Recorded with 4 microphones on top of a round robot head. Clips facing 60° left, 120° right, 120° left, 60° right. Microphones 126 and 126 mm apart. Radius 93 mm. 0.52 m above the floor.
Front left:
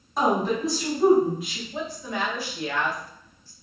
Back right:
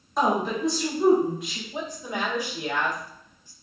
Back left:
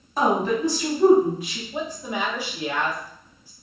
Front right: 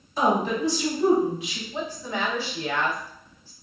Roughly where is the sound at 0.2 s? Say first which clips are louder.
Front left 1 dB, back left 2 dB; behind left.